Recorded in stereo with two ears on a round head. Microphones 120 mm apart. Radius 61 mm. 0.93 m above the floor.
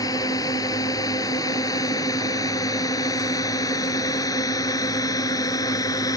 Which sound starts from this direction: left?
A drone, at 0.0 s.